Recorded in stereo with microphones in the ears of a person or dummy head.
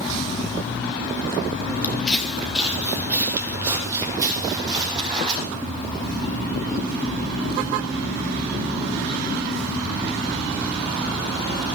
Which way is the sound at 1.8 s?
10° left (ahead or behind).